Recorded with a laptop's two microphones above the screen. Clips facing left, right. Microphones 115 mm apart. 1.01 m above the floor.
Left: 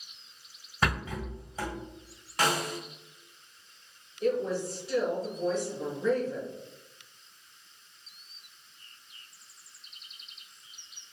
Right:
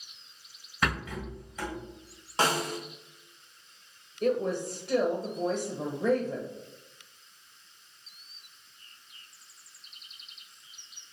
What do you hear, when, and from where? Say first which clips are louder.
0.8 s a rattle: left 1 dB; 30° left (ahead or behind), 1.7 m
2.4 s a snare drum: right 1 dB; 25° right (ahead or behind), 0.6 m
4.2 s a woman speaking: right 1 dB; 60° right (ahead or behind), 0.8 m